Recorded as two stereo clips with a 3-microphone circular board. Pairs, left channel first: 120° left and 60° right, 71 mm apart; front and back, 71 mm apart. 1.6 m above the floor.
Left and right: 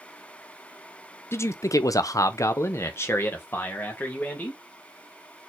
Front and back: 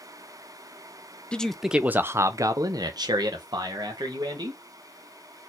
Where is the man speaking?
75° left, 0.6 m; by 4.6 s 175° right, 1.8 m.